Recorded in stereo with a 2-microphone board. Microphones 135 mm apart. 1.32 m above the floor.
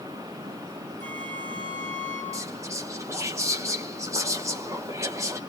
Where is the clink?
No clink in this recording.